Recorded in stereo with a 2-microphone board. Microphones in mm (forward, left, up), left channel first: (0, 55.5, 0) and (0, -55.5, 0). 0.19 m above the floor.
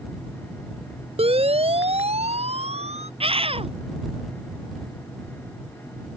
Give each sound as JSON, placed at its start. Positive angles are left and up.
{"t": 1.2, "sound": "a siren", "side_deg": -60}
{"t": 3.2, "sound": "a scream", "side_deg": -60}